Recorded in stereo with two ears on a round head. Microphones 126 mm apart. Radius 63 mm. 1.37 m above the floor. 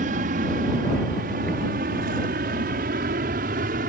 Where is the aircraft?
60° right (ahead or behind); by 3.9 s 65° right (ahead or behind).